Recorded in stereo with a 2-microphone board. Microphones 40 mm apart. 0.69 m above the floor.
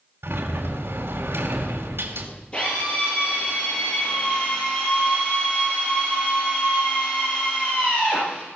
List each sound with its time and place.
0.2 s a sliding door: 75° right (ahead or behind), 3.5 m
2.5 s a drill: 30° left (ahead or behind), 8.5 m